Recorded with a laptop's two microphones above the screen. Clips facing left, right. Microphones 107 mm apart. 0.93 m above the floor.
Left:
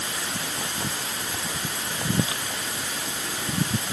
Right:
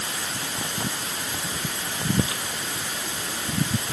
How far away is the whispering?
No whispering in this recording.